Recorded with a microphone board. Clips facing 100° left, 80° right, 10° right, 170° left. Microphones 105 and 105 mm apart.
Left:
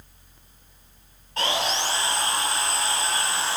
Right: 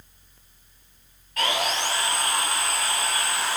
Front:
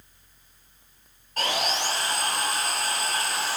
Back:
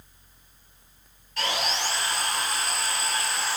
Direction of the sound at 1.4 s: 35° left.